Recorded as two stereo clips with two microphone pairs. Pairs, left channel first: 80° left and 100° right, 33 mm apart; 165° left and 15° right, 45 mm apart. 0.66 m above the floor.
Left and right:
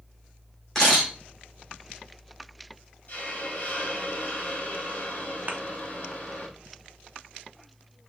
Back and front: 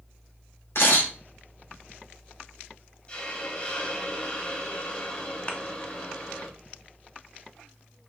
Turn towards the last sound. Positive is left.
turn(degrees=-140)